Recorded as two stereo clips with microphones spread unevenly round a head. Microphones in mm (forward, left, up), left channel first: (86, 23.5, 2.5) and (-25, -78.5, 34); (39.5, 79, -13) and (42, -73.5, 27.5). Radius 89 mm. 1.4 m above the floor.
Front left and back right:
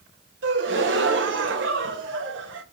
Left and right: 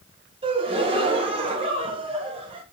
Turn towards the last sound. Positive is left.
turn(degrees=-150)